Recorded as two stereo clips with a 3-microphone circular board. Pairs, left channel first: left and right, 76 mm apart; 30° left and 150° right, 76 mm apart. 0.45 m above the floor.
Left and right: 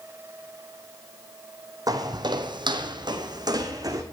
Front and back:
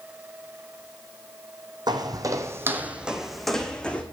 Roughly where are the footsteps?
Behind right.